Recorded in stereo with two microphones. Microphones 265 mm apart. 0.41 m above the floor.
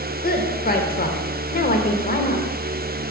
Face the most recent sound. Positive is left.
turn(degrees=35)  # may be behind; listen again after turning